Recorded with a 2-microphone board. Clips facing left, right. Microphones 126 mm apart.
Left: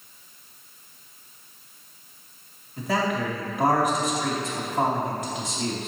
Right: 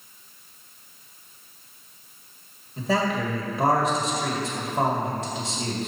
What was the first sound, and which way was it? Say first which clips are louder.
A man speaking: right 1 dB; 30° right (ahead or behind).